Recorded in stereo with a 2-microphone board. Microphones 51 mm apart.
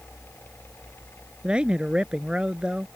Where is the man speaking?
15° right (ahead or behind).